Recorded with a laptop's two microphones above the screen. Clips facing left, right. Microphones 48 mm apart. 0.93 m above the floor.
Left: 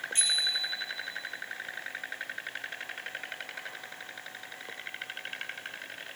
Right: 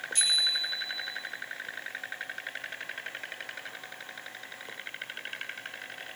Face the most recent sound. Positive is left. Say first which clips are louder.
# right 3 dB
turn(degrees=30)  # may be behind; listen again after turning